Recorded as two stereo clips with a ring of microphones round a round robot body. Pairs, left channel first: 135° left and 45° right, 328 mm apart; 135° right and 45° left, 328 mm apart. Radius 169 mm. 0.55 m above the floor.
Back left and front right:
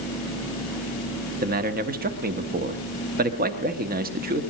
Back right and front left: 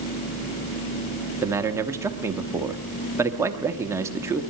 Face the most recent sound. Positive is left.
turn(degrees=-30)